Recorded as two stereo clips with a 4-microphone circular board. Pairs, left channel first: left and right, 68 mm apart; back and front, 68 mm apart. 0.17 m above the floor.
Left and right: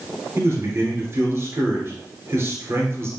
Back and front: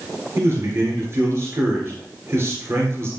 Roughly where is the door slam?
No door slam in this recording.